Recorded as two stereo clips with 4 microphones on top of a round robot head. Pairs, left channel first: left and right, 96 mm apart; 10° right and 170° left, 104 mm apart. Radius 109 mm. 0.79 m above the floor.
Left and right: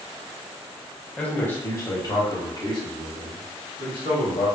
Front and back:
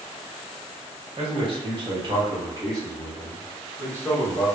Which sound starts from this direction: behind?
A man speaking, at 1.2 s.